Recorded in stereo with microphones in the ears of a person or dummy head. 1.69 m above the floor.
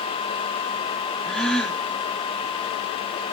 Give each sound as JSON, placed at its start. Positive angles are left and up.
{"t": 1.3, "sound": "a gasp", "side_deg": 5, "distance_m": 0.7}